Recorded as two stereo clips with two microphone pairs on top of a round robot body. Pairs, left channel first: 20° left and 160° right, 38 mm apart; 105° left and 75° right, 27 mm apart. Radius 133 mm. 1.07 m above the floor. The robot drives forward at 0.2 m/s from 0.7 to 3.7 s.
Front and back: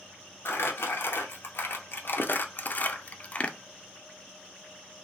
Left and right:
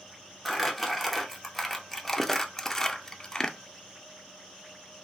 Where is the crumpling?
25° left, 0.8 m; by 3.6 s 85° left, 0.5 m.